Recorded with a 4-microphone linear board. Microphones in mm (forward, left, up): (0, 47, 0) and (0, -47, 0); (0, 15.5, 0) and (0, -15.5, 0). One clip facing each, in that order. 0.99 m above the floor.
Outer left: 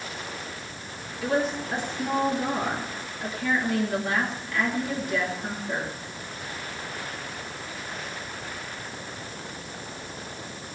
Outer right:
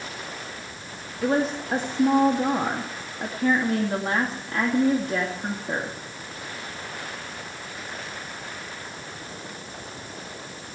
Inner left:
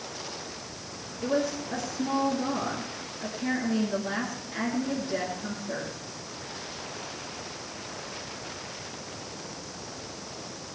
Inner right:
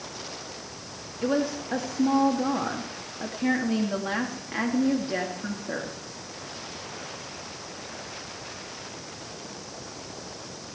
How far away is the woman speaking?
About 2 m.